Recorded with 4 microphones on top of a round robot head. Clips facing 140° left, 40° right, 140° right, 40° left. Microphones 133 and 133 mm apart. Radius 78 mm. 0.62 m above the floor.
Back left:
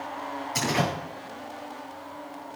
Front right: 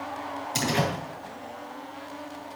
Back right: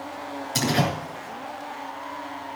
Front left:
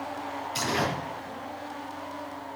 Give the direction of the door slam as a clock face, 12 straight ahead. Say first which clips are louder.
Even, back right 5 dB; 3 o'clock.